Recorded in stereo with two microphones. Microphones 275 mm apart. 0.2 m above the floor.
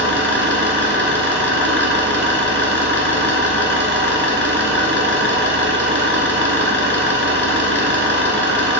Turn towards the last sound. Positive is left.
turn(degrees=-45)  # may be behind; listen again after turning